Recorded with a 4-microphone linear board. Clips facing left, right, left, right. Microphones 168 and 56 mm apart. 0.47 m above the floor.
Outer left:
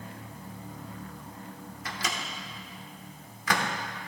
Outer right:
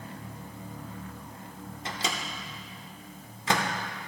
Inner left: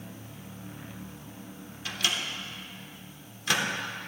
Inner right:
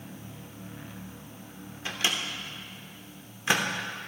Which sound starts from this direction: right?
A microwave, at 1.9 s.